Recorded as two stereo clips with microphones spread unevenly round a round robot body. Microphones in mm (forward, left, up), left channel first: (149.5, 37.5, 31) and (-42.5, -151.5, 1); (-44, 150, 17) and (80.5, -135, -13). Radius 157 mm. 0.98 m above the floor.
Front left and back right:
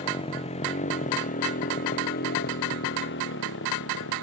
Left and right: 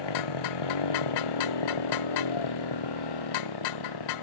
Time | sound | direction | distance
0.0 | a motorcycle | 120° left | ?